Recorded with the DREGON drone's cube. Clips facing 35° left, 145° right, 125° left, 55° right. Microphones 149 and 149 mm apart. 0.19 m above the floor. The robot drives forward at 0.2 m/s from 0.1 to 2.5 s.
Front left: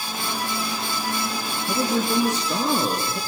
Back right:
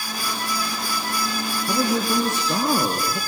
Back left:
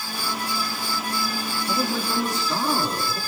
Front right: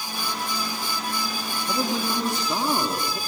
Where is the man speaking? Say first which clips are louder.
Even, even; 125° right, 3 m.